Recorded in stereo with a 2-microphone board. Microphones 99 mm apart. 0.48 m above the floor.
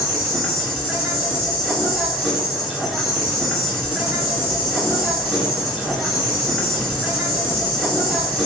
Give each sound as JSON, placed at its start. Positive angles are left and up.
{"t": 0.0, "sound": "an insect", "side_deg": -5, "distance_m": 1.6}